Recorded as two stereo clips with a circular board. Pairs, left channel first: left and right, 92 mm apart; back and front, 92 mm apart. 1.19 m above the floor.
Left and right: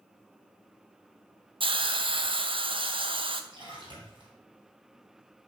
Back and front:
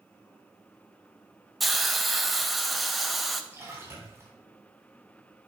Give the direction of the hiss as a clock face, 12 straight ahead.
3 o'clock.